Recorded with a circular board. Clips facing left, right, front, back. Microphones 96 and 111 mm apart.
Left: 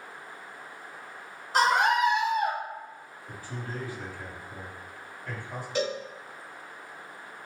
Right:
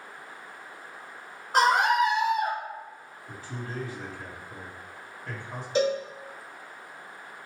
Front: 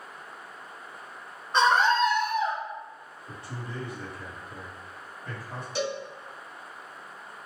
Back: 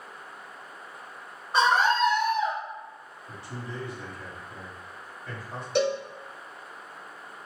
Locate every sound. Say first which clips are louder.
1.5 s a scream: right 1 dB, even; 105° right, 1.6 m; by 2.6 s 45° right, 1.1 m
3.3 s a man speaking: even, back 1 dB; 30° right, 1.8 m
5.8 s a cowbell: right 5 dB, back 6 dB; 155° right, 1.0 m